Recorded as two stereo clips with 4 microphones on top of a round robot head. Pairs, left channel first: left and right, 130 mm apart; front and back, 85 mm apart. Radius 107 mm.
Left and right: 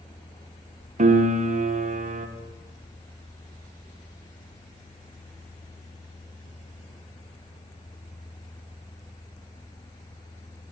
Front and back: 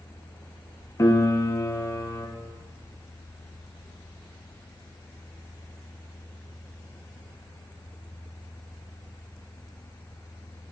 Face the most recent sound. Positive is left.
turn(degrees=-60)